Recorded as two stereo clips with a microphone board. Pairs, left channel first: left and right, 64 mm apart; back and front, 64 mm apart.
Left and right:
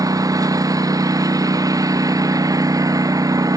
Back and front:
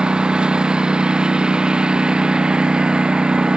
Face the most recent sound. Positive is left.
turn(degrees=-75)